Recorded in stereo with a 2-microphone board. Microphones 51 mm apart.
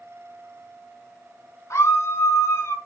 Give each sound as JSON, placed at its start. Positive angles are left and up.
{"t": 1.7, "sound": "a scream", "side_deg": 65, "distance_m": 3.5}